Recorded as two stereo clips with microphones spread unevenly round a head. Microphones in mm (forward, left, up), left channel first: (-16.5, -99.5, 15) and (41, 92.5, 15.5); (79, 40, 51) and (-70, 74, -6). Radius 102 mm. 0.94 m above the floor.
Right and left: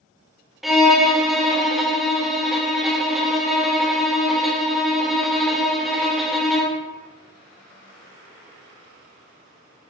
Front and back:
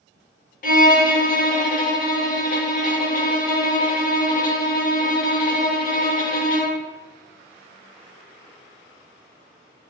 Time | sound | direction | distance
0.6 | a violin | 15° right | 0.8 m